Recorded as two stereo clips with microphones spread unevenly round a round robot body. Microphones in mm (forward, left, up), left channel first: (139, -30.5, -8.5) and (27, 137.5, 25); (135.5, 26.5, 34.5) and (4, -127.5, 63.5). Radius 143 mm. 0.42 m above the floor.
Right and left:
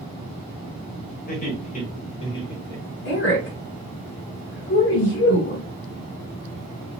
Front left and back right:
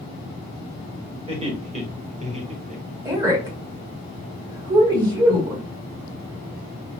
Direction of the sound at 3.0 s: 60° right.